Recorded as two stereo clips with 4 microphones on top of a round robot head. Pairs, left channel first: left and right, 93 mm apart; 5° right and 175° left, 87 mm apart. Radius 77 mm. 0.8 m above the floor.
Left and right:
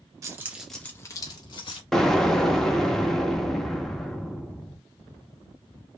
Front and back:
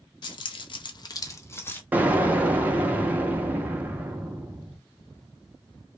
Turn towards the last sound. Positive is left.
turn(degrees=165)